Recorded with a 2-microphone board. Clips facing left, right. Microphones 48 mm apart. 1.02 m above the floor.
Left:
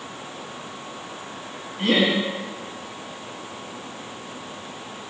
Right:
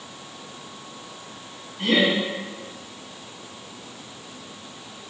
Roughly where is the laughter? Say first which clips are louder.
Even; left.